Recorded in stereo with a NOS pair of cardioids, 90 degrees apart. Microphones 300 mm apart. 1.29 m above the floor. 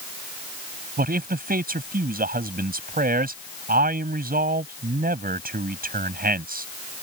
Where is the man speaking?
30° right.